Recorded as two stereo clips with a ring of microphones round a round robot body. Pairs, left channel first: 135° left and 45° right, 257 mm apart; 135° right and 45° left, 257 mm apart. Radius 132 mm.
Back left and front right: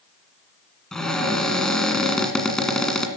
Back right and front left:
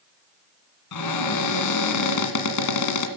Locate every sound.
0.9 s a cupboard door: 140° right, 1.9 m